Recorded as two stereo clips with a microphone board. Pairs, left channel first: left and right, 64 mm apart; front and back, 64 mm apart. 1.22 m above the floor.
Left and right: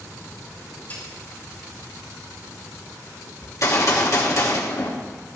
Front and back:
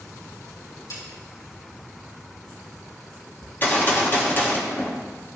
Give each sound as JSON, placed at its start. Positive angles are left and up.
{"t": 0.9, "sound": "a snare drum", "azimuth_deg": 25, "distance_m": 4.5}
{"t": 3.4, "sound": "a gunshot", "azimuth_deg": 55, "distance_m": 1.5}